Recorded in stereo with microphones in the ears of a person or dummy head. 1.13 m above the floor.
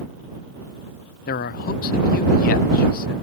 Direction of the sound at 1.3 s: 45° left (ahead or behind).